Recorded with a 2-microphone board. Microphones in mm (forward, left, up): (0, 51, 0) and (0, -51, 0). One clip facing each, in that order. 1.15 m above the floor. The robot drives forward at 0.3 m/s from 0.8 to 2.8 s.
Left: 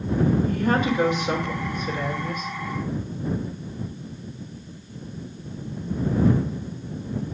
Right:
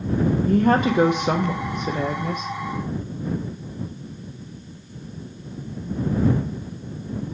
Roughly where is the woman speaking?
Right.